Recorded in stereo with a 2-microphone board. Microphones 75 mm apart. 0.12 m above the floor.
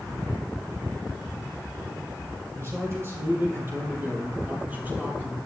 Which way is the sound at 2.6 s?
40° right (ahead or behind).